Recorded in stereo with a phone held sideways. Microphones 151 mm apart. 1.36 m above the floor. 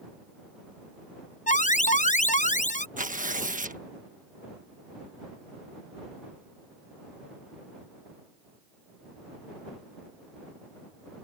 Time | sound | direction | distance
1.5 | an alarm | 55° left (ahead or behind) | ?
3.0 | tearing paper | 60° right (ahead or behind) | ?